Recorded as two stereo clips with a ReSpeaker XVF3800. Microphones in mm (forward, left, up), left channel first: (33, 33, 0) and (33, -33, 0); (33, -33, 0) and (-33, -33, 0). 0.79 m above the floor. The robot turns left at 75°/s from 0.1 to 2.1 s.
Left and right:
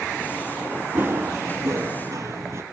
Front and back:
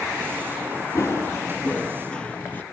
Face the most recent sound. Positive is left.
turn(degrees=-50)